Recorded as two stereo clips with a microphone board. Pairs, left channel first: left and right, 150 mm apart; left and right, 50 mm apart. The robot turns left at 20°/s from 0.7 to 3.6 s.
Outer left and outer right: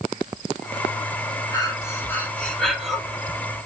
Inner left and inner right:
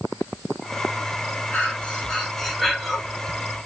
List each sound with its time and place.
1.5 s breathing: 25° left (ahead or behind), 3 m; by 3.0 s 5° right (ahead or behind), 3 m